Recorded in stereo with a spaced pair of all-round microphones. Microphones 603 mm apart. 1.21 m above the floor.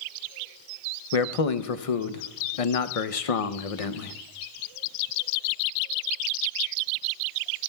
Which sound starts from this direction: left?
A man speaking, at 1.1 s.